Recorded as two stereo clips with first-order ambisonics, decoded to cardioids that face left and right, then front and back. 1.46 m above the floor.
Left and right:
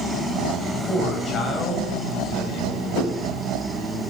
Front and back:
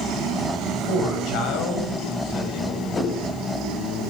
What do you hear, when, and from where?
0.9 s a man speaking: 25° left, 10 m; by 2.8 s 35° left, 9.5 m
2.9 s a whoosh: 60° left, 9.5 m